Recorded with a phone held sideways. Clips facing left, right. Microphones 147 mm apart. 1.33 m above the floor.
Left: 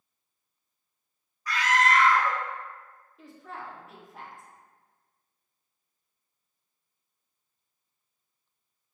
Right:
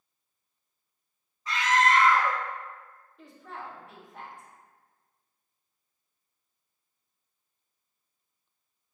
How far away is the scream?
About 0.6 m.